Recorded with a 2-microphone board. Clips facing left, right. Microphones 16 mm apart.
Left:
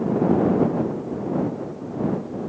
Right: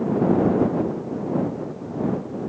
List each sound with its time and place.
Only background noise.